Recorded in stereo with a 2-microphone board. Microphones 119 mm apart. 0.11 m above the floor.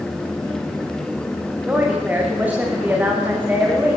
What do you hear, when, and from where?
1.7 s a woman speaking: 15° right (ahead or behind), 8.5 m